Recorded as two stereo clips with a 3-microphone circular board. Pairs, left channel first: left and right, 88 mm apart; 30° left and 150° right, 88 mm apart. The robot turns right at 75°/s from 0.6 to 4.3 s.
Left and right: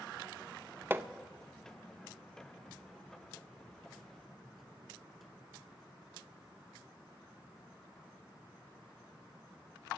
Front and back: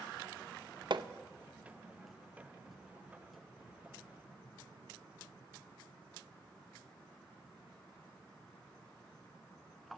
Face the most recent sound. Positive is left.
turn(degrees=100)